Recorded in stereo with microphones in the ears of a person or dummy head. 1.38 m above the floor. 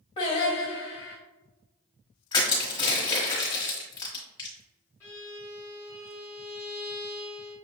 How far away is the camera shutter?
No camera shutter in this recording.